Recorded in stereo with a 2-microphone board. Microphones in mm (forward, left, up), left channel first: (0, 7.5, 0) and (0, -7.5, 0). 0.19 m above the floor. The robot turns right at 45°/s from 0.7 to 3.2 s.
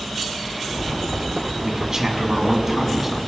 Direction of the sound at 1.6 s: 95° right.